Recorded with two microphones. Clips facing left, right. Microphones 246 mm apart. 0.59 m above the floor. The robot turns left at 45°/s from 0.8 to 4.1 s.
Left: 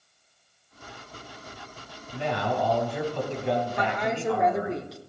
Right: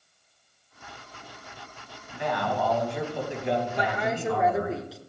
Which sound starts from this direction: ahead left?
A man speaking, at 2.1 s.